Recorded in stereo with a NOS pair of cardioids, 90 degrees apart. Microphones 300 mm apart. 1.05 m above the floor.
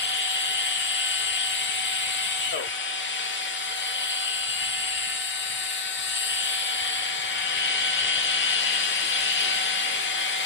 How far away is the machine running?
About 0.8 m.